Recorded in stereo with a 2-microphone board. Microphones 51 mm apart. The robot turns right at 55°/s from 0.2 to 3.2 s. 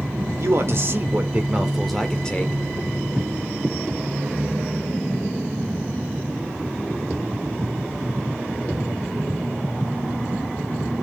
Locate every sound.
0.4 s a man speaking: 85° right, 1.9 m; by 2.5 s 35° left, 1.9 m